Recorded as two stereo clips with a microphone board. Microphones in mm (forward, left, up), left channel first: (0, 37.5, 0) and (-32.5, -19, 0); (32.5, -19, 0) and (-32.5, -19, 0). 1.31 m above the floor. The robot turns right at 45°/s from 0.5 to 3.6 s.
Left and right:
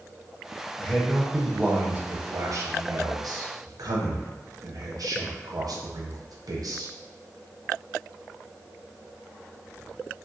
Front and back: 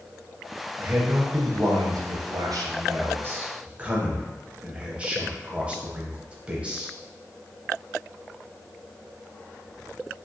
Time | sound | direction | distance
0.8 | a man speaking | 125° left | 0.5 m